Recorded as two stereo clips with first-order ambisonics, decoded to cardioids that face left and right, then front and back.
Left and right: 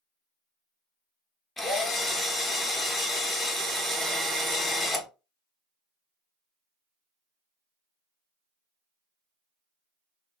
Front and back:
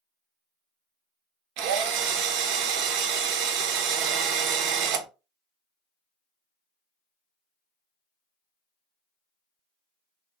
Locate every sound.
1.6 s a drill: 175° left, 0.6 m